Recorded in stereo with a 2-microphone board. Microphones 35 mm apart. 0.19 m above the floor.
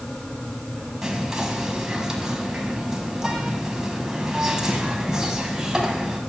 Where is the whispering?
15° right (ahead or behind), 1.0 m.